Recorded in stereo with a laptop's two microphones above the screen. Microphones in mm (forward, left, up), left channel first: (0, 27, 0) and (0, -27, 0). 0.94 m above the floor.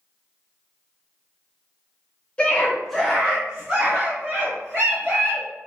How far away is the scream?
About 0.7 m.